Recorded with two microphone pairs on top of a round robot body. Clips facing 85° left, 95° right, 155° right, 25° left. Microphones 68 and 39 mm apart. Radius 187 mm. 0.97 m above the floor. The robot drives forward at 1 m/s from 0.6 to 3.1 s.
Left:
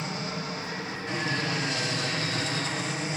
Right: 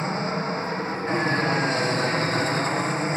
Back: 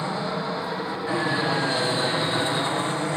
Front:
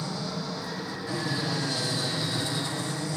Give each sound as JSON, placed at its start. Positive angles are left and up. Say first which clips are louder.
{"t": 0.0, "sound": "an aircraft", "louder": "right 7 dB, back 6 dB", "azimuth_deg": -120}